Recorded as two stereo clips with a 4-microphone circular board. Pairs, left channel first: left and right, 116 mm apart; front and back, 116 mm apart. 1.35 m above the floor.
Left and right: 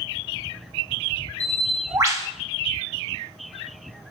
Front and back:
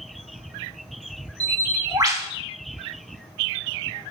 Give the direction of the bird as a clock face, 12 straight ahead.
5 o'clock.